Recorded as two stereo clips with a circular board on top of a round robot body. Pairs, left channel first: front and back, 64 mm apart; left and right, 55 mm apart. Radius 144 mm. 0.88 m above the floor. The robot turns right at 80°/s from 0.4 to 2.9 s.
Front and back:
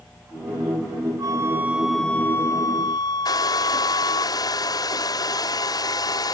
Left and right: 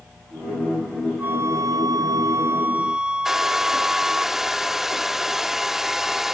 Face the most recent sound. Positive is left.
turn(degrees=-5)